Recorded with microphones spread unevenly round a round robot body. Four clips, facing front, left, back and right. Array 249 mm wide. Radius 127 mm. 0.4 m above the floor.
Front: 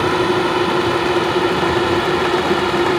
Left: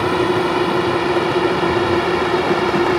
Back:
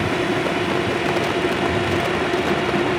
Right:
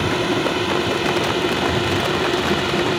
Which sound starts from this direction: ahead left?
A drone, at 0.0 s.